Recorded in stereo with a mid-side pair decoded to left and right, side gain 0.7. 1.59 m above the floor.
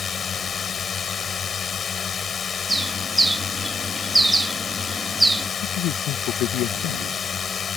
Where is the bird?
10° right.